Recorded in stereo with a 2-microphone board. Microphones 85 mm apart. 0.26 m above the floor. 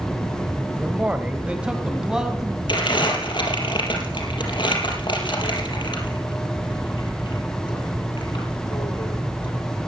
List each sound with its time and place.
0.8 s a man speaking: 15° right (ahead or behind), 1.3 m; by 2.6 s 5° right (ahead or behind), 2.5 m
2.7 s crumpling: 70° left (ahead or behind), 4.5 m